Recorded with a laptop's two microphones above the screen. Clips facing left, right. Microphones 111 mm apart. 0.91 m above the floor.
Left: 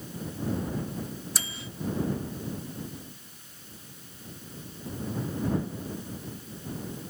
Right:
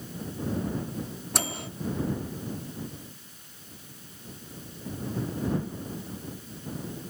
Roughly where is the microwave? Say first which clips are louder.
Right 6 dB; right.